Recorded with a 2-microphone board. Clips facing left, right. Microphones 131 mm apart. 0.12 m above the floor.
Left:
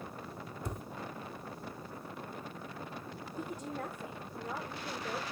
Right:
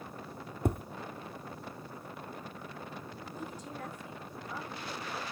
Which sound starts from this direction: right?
Tapping, at 0.7 s.